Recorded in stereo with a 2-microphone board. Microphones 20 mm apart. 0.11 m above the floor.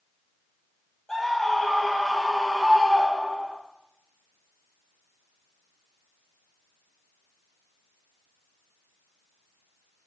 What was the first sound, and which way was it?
A scream, 20° left (ahead or behind).